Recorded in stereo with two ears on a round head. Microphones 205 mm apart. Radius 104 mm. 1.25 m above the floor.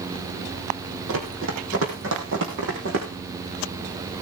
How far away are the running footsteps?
About 3.5 m.